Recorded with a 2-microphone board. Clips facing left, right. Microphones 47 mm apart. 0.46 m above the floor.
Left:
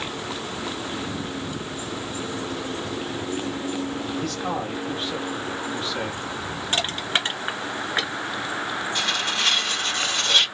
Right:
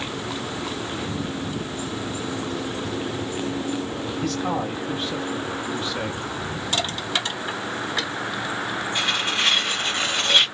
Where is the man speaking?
Centre (ahead or behind), 0.8 m.